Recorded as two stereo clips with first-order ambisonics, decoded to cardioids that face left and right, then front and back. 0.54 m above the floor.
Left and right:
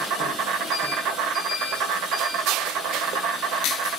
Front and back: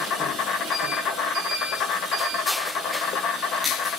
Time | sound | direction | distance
0.0 | an insect | 50° right | 0.9 m